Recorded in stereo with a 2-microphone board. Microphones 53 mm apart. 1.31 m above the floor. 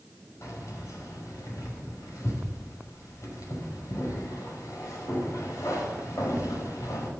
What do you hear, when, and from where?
0.4 s keys jangling: 80° left, 5.5 m